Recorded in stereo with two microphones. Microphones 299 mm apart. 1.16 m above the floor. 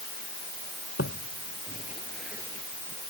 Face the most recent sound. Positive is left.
turn(degrees=-40)  # may be behind; listen again after turning